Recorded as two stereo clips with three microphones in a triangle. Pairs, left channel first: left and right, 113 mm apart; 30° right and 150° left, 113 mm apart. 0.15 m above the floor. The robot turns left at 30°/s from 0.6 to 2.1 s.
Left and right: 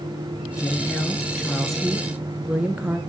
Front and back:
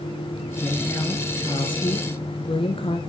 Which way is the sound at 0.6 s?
35° left.